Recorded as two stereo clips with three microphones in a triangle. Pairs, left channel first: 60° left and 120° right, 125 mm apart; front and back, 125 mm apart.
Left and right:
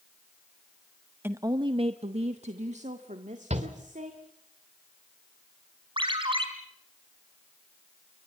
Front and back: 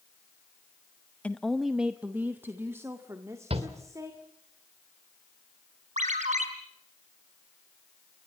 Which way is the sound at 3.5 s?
145° right.